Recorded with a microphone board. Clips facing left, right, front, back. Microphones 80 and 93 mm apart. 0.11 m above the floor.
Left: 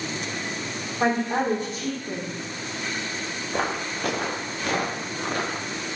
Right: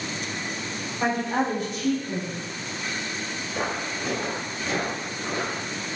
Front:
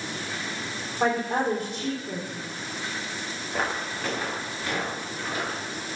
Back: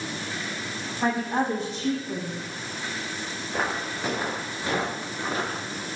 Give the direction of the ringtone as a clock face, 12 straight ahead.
No ringtone in this recording.